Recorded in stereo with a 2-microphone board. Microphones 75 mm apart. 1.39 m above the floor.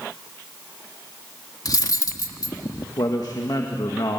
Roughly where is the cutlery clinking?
Left.